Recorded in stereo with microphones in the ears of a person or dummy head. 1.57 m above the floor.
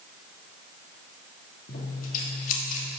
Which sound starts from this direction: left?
Scissors, at 1.7 s.